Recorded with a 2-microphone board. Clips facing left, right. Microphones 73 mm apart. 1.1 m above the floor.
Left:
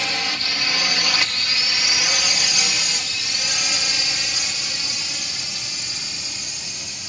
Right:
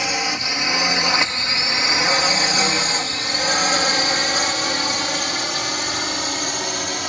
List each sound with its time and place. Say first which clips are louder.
0.0 s a drone: right 3 dB; 15° right (ahead or behind); by 7.1 s 70° right (ahead or behind)